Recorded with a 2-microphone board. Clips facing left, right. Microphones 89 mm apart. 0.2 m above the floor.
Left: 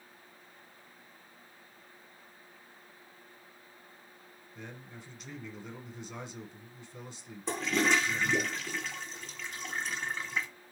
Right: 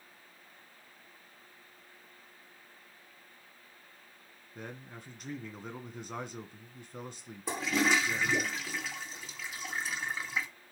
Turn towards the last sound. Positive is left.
turn(degrees=-5)  # may be behind; listen again after turning